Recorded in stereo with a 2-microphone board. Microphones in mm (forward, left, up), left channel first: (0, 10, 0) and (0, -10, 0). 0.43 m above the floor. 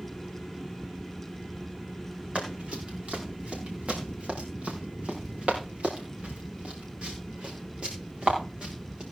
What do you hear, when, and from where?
2.4 s running footsteps: 80° right, 4.5 m; by 9.0 s 50° right (ahead or behind), 5 m